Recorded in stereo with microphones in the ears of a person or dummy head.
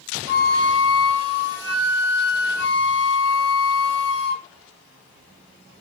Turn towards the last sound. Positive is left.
turn(degrees=70)  # may be behind; listen again after turning